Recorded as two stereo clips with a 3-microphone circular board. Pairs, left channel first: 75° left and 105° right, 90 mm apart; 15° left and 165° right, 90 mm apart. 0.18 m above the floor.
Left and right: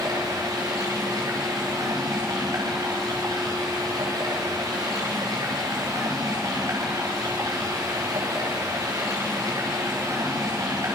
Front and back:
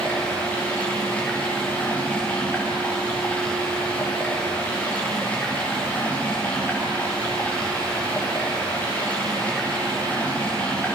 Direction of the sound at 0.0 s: 60° right.